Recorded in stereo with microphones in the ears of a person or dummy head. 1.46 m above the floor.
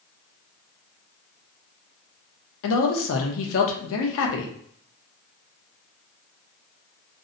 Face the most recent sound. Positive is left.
turn(degrees=75)  # may be behind; listen again after turning